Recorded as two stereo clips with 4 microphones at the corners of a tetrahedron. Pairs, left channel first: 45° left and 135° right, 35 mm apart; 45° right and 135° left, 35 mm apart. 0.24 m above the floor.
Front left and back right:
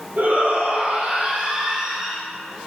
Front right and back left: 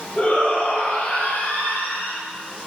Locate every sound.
0.2 s a shout: 100° right, 5 m; by 2.2 s 65° right, 4 m